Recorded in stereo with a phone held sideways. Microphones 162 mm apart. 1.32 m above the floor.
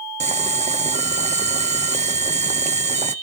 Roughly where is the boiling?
Right.